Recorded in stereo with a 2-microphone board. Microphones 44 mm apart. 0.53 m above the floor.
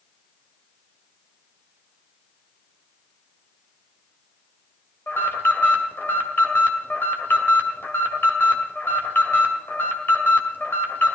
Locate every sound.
5.1 s an alarm: 55° left (ahead or behind), 2 m